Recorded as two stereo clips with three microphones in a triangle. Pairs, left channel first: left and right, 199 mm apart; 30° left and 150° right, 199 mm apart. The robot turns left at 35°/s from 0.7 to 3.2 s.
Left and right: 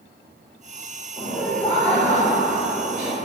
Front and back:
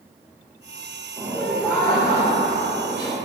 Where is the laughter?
125° left, 1.2 m; by 3.2 s 55° left, 1.2 m.